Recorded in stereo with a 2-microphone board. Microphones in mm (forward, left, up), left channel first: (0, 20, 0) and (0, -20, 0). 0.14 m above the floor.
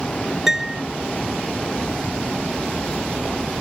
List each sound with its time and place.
0.5 s a piano: 10° right (ahead or behind)